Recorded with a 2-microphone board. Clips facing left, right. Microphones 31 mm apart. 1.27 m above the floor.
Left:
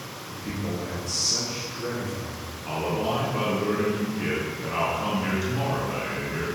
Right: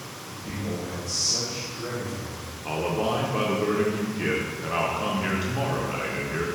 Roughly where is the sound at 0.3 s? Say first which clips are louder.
Left 1 dB; left.